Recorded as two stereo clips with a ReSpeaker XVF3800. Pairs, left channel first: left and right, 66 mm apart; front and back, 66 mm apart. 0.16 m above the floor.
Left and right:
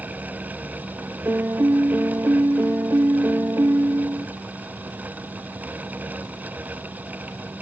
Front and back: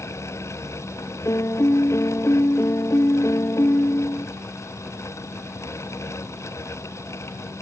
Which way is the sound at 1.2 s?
40° right.